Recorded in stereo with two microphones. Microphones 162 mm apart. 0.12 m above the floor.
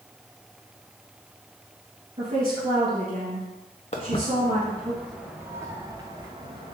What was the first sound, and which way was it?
A woman speaking, 40° right (ahead or behind).